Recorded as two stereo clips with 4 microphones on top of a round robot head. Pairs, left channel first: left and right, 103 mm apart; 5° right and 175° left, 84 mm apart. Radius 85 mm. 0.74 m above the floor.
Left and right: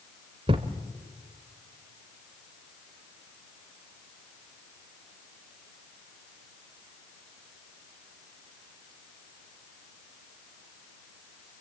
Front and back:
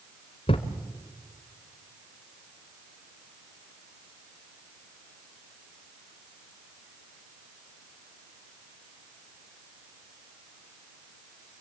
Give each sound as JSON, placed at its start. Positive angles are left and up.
{"t": 0.5, "sound": "a thud", "azimuth_deg": -40, "distance_m": 1.2}